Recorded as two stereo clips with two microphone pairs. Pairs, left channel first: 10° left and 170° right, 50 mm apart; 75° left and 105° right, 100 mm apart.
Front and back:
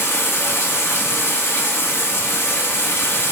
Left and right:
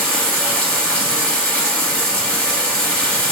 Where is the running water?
Straight ahead, 1.1 m.